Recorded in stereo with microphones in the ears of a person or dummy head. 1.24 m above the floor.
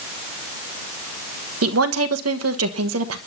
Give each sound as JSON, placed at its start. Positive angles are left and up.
{"t": 1.6, "sound": "a woman speaking", "side_deg": -75, "distance_m": 1.2}